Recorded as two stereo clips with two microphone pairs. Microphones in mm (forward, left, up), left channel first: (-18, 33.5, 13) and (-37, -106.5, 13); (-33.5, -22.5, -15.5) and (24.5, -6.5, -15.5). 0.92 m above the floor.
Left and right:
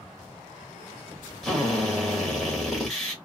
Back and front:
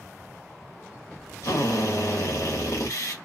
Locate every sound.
1.4 s a drill: 170° left, 1.5 m